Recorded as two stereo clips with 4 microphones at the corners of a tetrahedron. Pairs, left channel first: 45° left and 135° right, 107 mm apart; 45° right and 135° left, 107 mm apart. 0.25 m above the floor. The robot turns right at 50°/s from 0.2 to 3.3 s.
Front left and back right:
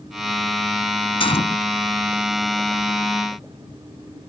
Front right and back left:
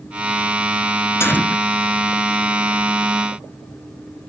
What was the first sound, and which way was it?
A gunshot, 20° left.